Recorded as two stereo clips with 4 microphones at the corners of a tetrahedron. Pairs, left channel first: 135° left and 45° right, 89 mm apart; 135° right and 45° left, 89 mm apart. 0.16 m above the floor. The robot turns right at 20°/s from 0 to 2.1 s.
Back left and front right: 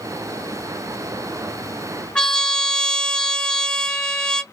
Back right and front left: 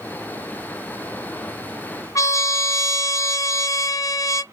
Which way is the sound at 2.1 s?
150° right.